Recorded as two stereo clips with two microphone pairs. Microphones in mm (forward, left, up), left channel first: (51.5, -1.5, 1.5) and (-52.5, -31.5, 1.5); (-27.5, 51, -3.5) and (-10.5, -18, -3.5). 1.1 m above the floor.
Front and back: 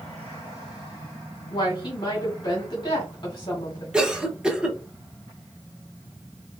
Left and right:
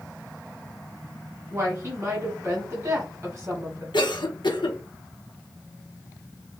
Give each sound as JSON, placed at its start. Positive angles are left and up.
{"t": 1.5, "sound": "a woman speaking", "azimuth_deg": -30, "distance_m": 1.6}
{"t": 3.9, "sound": "a cough", "azimuth_deg": 115, "distance_m": 0.8}